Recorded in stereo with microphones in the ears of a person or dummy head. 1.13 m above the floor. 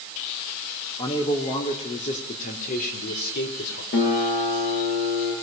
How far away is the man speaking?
About 3 m.